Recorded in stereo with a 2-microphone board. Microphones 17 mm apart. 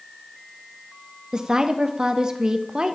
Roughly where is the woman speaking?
Right.